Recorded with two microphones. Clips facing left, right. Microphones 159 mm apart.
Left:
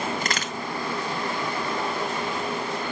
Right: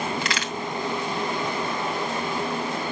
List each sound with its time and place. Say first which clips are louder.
0.2 s a crack: even; 45° left (ahead or behind), 2.5 m